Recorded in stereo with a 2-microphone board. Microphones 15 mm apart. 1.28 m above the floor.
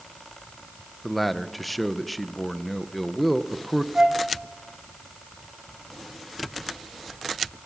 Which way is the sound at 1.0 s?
5° left (ahead or behind).